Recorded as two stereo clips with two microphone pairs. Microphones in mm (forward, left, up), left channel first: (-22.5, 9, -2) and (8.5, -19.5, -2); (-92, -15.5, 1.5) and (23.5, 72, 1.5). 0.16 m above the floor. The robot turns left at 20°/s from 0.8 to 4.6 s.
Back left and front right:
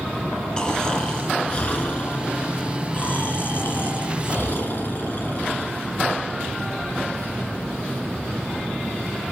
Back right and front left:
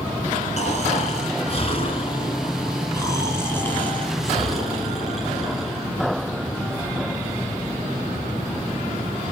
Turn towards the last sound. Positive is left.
turn(degrees=125)